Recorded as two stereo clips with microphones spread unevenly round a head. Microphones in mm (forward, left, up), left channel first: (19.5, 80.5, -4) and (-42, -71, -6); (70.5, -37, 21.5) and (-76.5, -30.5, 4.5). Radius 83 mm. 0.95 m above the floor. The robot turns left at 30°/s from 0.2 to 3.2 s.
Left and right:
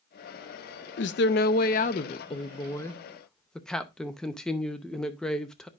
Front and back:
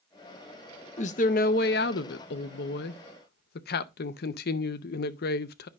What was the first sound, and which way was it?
A woman speaking, 50° left.